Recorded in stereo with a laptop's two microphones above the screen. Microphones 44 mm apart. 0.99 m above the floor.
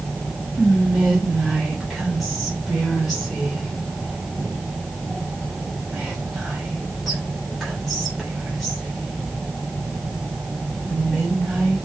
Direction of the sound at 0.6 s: 5° left (ahead or behind).